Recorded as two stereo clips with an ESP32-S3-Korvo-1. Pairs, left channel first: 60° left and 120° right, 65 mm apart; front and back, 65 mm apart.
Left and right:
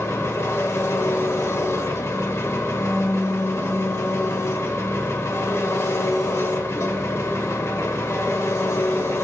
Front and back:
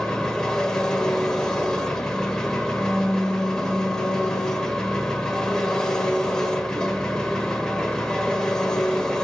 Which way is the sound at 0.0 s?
75° left.